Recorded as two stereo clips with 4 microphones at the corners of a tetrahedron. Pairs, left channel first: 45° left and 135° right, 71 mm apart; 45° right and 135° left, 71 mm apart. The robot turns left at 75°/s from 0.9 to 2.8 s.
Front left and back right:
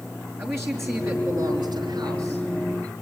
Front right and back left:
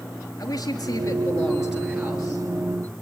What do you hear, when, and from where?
0.4 s a man speaking: 80° right, 5 m; by 2.4 s 165° left, 5 m